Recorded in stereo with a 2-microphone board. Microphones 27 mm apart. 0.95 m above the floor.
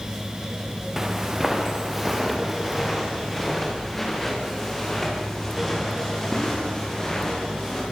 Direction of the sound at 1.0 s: 15° right (ahead or behind).